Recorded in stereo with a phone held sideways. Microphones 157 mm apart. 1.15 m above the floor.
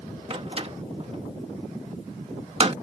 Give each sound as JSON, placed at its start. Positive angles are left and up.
{"t": 0.3, "sound": "a door slam", "side_deg": -35}